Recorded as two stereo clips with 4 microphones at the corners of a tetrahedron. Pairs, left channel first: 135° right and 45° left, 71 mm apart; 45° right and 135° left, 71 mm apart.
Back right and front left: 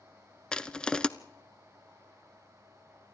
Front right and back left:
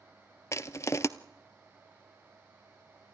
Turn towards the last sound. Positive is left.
turn(degrees=-60)